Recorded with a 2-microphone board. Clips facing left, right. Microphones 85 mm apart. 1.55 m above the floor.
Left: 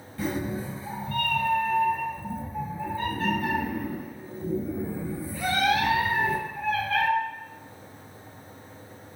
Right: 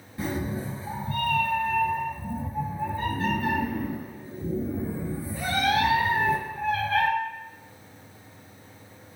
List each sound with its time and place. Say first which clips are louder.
0.2 s a cat meowing: left 1 dB; 15° right (ahead or behind), 1.9 m